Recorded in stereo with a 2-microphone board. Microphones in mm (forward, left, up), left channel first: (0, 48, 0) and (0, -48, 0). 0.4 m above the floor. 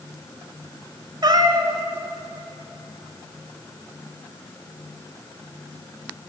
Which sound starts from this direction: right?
A cat meowing, at 1.2 s.